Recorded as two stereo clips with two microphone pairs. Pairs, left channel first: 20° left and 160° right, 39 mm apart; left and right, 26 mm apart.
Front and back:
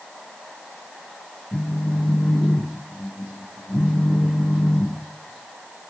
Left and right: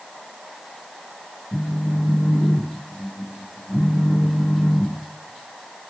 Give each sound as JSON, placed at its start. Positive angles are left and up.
{"t": 1.5, "sound": "a phone buzzing", "azimuth_deg": 55, "distance_m": 3.5}